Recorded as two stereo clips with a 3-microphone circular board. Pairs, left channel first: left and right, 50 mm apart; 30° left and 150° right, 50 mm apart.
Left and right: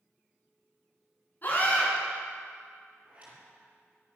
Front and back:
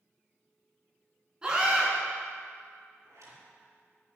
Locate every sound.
1.4 s a scream: 140° left, 4.5 m
3.0 s a zipper: 155° right, 5 m